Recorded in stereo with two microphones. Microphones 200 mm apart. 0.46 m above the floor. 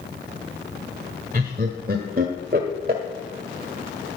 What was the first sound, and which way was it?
Laughter, 50° right (ahead or behind).